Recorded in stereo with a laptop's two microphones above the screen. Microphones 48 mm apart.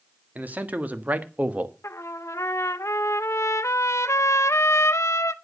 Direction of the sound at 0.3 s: 35° right (ahead or behind).